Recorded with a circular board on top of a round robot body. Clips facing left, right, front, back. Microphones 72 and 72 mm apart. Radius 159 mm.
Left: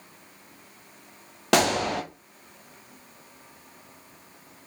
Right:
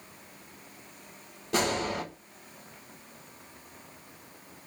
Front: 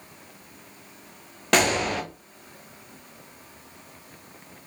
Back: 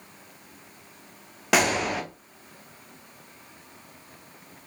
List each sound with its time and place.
1.5 s a gunshot: 95° left, 0.5 m